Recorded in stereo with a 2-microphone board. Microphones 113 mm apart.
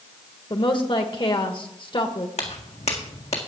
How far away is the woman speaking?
About 1.1 m.